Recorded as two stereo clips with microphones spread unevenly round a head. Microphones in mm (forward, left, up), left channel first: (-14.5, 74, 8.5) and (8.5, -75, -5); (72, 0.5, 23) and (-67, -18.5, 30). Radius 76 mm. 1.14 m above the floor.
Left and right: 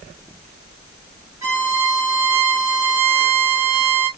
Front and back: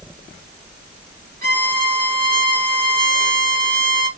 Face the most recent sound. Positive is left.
turn(degrees=-155)